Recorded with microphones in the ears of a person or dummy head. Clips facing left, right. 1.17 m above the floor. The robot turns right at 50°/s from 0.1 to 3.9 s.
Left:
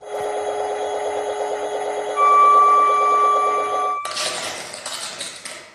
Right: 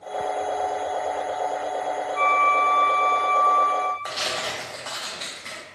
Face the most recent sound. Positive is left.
turn(degrees=40)  # may be behind; listen again after turning